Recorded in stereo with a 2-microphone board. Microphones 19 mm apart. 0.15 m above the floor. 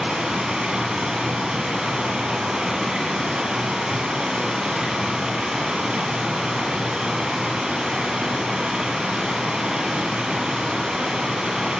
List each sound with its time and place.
0.0 s running water: 55° right (ahead or behind), 3 m